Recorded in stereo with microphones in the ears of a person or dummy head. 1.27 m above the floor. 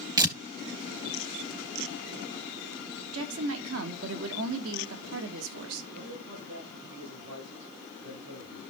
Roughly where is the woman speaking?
Right.